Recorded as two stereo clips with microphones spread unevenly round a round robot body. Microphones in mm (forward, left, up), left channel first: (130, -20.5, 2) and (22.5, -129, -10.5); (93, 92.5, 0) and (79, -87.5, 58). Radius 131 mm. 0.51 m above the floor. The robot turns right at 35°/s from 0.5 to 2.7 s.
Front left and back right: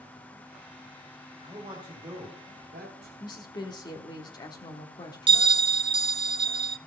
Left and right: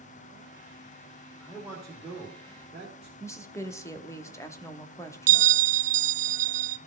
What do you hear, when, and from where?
1.4 s a man speaking: 150° left, 2 m; by 3.1 s 165° right, 2 m
3.2 s a woman speaking: 100° left, 1.0 m
5.3 s a bell: 140° right, 0.5 m